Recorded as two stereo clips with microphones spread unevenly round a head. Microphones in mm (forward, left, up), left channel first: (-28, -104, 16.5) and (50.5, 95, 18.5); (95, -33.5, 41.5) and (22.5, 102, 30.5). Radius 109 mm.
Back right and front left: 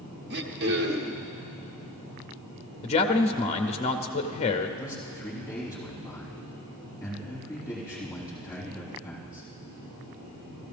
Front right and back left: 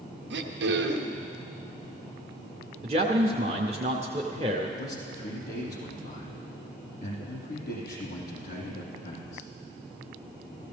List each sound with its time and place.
0.3 s throat clearing: 115° left, 0.9 m
2.8 s a man speaking: 175° right, 0.5 m
4.8 s a man speaking: 30° right, 4 m